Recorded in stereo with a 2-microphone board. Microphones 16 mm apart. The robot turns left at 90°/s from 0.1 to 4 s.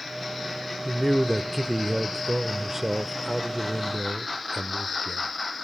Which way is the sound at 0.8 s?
40° left.